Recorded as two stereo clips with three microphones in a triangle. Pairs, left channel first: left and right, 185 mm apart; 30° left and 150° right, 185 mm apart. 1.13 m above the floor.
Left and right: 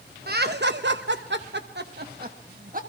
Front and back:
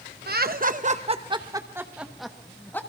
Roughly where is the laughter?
Behind right.